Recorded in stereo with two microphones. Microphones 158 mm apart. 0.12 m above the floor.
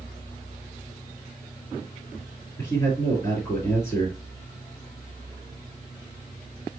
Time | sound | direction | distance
2.6 | a man speaking | 25° left (ahead or behind) | 2.5 m